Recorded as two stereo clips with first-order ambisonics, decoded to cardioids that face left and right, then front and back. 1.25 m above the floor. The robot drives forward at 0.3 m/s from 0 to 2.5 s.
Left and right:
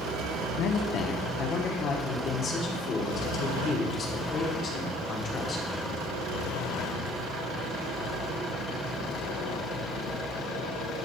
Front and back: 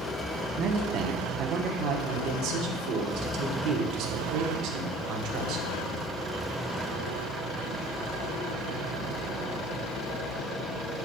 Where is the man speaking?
125° left, 0.8 m; by 5.7 s 150° left, 1.2 m.